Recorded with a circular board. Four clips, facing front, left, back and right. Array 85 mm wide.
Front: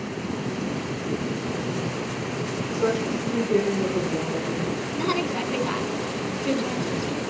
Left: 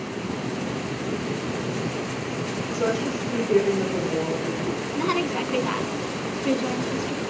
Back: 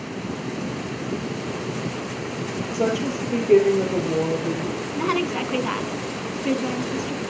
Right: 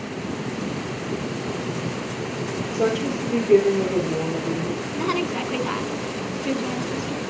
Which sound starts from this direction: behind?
A woman speaking, at 5.0 s.